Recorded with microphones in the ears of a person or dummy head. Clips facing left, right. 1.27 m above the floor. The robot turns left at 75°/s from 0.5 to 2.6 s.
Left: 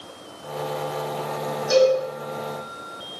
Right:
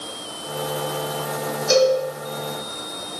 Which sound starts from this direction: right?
A cowbell, at 1.7 s.